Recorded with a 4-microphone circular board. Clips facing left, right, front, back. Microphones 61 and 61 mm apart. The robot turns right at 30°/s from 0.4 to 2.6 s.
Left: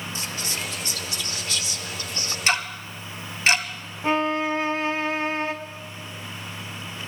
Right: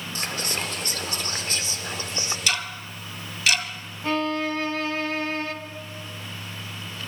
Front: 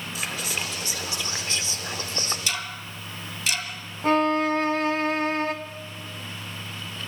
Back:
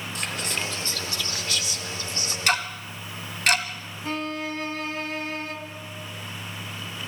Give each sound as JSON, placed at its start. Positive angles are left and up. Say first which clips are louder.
{"t": 0.1, "sound": "whispering", "louder": "right 5 dB, back 1 dB", "azimuth_deg": -85, "distance_m": 0.9}
{"t": 2.5, "sound": "ticking", "louder": "left 7 dB, back 6 dB", "azimuth_deg": 145, "distance_m": 1.2}
{"t": 4.0, "sound": "a violin", "louder": "left 2 dB, front 9 dB", "azimuth_deg": 25, "distance_m": 1.1}